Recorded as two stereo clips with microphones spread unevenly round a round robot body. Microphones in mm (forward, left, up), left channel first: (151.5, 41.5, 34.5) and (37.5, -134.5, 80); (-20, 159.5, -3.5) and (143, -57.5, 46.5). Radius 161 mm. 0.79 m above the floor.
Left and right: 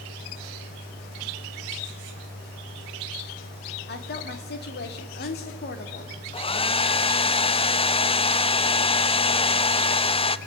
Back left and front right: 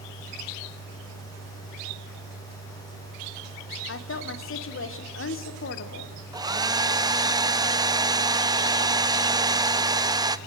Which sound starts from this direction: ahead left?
A hair dryer, at 6.3 s.